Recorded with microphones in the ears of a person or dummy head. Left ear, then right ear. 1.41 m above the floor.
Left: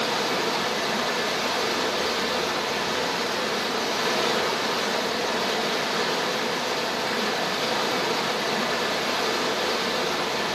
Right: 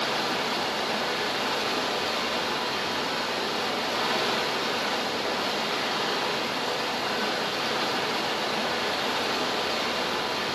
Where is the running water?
20° left (ahead or behind), 9 m.